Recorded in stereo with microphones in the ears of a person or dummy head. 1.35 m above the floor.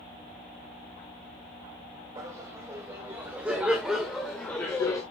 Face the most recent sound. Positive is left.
turn(degrees=20)  # may be behind; listen again after turning